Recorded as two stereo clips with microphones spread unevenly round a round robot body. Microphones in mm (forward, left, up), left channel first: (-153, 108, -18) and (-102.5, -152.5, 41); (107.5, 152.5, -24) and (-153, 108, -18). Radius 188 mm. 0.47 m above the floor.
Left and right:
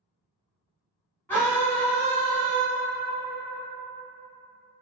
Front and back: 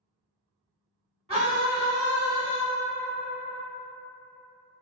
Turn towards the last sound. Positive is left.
turn(degrees=145)